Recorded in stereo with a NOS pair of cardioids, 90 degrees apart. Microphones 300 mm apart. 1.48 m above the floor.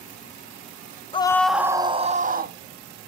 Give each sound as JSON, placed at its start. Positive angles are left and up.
{"t": 1.1, "sound": "a scream", "azimuth_deg": 20, "distance_m": 0.6}